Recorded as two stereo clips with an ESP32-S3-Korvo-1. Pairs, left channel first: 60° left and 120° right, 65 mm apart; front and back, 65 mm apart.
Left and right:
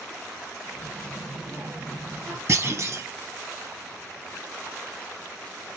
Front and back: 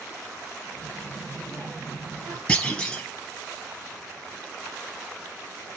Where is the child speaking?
25° left, 0.8 m; by 2.4 s 145° right, 1.7 m.